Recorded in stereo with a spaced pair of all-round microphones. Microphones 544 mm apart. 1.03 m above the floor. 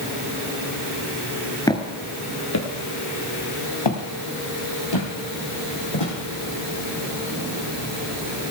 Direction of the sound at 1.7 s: 5° left (ahead or behind).